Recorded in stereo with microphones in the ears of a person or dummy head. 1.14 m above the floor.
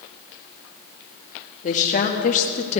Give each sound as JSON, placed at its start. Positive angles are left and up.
{"t": 1.6, "sound": "a woman speaking", "side_deg": 35, "distance_m": 1.4}